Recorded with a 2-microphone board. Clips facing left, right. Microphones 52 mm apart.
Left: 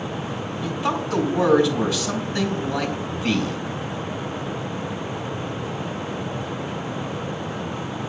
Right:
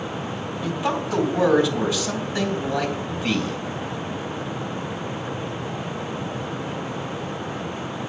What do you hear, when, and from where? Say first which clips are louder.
0.6 s a man speaking: even; 25° right (ahead or behind), 3 m